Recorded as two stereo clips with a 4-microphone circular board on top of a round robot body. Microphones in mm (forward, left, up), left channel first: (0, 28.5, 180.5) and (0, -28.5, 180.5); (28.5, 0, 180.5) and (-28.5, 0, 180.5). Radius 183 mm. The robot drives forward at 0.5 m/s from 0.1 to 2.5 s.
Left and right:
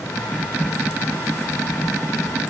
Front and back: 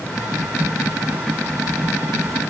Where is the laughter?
I don't hear laughter.